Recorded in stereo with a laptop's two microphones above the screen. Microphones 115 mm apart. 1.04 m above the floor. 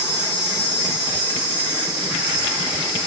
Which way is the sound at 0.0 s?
10° right (ahead or behind).